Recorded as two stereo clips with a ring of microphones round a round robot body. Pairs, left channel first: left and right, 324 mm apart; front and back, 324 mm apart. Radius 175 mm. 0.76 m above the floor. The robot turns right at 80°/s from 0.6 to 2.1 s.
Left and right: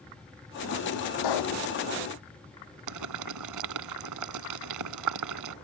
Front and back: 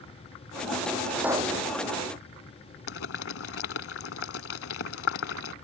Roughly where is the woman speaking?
I don't hear a woman speaking.